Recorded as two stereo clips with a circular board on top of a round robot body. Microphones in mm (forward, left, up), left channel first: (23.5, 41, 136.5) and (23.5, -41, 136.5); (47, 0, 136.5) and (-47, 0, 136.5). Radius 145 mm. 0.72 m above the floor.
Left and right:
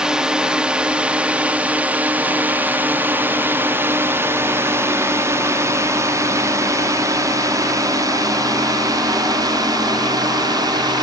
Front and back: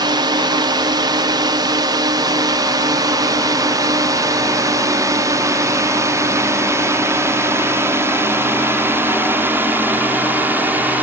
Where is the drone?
170° right; by 11.0 s 110° right.